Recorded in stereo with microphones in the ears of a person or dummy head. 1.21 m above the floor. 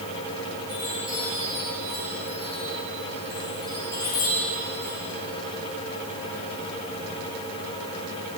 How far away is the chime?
About 8 m.